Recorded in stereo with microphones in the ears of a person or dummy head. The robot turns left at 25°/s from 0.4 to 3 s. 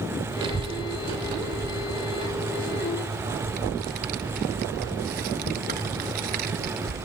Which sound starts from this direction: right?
A child speaking, at 0.4 s.